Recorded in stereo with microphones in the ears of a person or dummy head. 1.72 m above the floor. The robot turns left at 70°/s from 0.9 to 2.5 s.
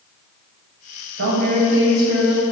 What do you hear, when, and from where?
1.2 s a woman speaking: 95° right, 0.9 m; by 2.4 s 175° left, 0.9 m